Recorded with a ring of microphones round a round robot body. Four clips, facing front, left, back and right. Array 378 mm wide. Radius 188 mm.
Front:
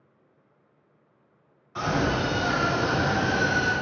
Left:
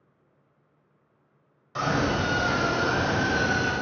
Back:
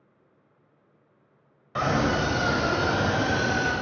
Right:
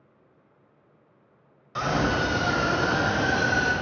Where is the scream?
170° right, 2.5 m; by 3.7 s 155° right, 3.5 m.